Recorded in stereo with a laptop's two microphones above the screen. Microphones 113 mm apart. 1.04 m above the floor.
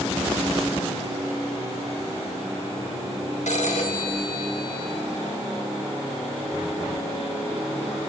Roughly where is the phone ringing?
Left.